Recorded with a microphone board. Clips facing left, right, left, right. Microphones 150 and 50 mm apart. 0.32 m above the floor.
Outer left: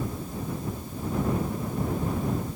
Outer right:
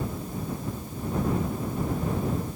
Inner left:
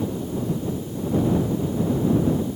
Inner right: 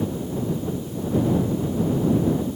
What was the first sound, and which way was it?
Only background noise.